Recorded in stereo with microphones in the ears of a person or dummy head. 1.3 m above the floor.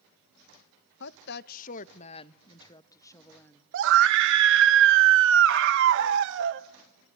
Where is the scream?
70° right (ahead or behind), 1.1 m.